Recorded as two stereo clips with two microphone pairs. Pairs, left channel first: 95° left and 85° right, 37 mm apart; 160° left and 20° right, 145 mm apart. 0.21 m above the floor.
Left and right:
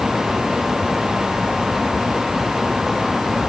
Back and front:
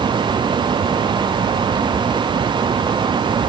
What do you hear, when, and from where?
Only background noise.